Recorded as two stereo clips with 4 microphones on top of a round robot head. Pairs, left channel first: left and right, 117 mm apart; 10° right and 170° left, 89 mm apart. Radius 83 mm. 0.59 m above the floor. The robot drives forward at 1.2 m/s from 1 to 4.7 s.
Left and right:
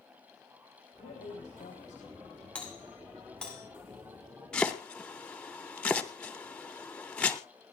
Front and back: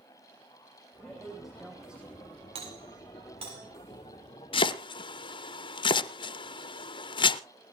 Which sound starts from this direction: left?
A woman speaking, at 1.0 s.